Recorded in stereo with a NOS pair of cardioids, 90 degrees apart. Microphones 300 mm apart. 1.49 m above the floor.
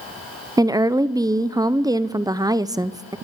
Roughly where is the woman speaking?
Ahead.